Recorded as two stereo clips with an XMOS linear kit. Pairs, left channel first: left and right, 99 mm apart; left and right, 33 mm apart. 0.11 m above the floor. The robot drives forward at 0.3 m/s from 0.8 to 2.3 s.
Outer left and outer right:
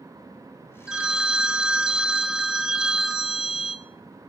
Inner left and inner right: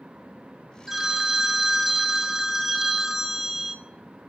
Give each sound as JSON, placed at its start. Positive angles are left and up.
{"t": 0.9, "sound": "a phone ringing", "side_deg": -10, "distance_m": 0.7}